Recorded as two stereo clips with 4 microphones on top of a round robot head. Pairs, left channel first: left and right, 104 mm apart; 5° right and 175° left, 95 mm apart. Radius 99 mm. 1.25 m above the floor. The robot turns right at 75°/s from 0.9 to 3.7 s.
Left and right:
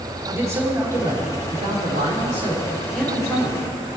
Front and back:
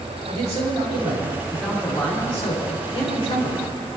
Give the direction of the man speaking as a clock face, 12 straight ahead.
5 o'clock.